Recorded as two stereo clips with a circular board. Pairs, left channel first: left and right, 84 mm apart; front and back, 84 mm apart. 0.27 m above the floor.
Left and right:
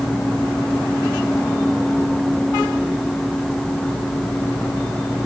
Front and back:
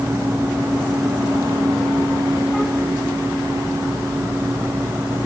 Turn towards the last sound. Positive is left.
No sound to turn to.